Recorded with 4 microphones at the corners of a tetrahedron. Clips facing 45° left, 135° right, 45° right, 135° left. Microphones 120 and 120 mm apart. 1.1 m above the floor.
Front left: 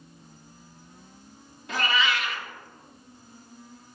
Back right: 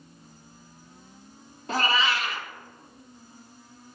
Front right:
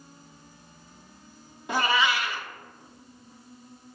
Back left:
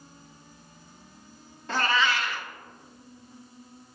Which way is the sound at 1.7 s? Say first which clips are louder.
Back right 1 dB, front right 1 dB; 115° right.